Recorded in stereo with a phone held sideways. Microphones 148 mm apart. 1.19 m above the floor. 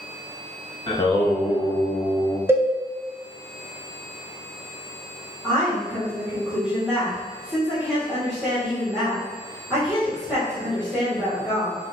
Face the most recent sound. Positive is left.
turn(degrees=-10)  # may be behind; listen again after turning